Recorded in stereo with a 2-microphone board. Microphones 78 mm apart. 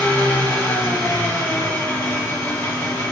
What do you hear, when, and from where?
0.0 s an engine running: 40° left (ahead or behind), 3 m